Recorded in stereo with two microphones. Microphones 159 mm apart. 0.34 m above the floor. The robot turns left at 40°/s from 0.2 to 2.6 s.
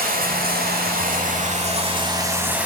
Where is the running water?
75° right, 1.0 m; by 2.7 s 170° right, 1.0 m.